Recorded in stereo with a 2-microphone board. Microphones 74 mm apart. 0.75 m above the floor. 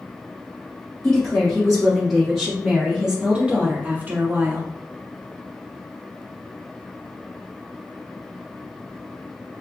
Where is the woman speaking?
5° left (ahead or behind), 1.7 m; by 4.7 s 30° right (ahead or behind), 1.0 m.